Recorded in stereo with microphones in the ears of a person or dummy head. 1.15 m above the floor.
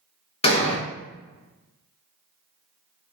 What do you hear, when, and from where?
0.4 s an explosion: 20° left (ahead or behind), 0.6 m